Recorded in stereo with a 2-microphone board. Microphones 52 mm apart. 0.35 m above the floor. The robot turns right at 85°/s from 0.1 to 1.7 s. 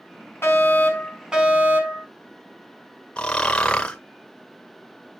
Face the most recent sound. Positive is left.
turn(degrees=20)  # may be behind; listen again after turning